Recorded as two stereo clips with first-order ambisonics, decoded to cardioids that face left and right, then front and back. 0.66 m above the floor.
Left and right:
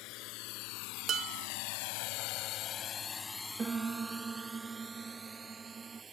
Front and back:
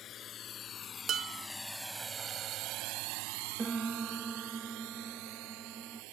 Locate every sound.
0.0 s a drone: 60° left; by 6.1 s 160° right
1.1 s dishes clattering: 135° right
3.6 s a piano: 135° right